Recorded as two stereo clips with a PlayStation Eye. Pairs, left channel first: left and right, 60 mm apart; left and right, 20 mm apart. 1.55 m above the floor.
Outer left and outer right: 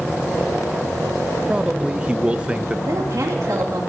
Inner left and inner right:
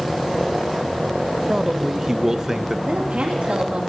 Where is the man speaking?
20° right (ahead or behind), 0.5 m.